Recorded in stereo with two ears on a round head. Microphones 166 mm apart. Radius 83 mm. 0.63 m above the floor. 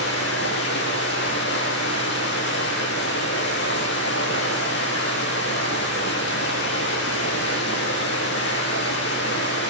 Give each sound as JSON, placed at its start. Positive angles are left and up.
{"t": 0.0, "sound": "running water", "side_deg": 60, "distance_m": 7.5}